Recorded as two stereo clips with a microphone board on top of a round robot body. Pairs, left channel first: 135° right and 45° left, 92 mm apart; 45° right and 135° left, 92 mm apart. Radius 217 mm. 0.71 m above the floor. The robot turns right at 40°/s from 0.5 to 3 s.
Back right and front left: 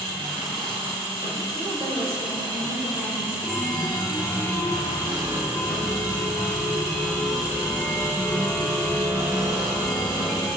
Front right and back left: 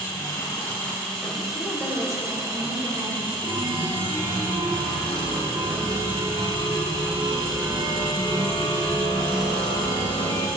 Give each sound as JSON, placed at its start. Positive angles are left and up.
{"t": 0.0, "sound": "an engine running", "azimuth_deg": 5, "distance_m": 3.5}
{"t": 1.6, "sound": "a woman speaking", "azimuth_deg": 20, "distance_m": 3.0}
{"t": 3.4, "sound": "a chime", "azimuth_deg": 130, "distance_m": 1.6}